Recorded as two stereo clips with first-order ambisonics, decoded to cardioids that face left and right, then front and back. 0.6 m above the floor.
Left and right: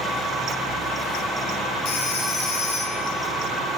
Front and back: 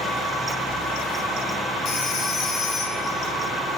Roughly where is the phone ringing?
Ahead left.